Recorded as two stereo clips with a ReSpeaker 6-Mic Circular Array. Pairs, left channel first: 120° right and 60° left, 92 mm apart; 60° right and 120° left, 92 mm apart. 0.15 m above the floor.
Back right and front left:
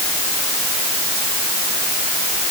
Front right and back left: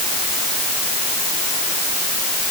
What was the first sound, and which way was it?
Only background noise.